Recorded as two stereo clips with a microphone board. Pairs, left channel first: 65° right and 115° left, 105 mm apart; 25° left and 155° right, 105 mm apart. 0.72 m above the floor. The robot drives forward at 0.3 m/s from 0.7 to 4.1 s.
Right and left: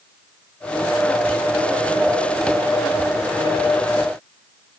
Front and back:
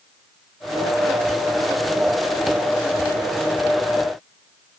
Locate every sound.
Only background noise.